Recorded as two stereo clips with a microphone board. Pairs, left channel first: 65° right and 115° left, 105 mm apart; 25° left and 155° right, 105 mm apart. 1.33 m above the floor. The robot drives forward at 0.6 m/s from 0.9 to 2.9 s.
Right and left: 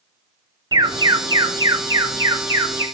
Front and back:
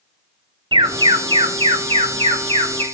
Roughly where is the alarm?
Behind.